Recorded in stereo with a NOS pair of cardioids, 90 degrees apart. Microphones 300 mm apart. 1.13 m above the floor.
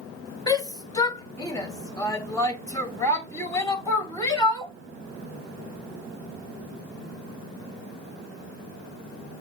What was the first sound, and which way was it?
A shout, 10° left.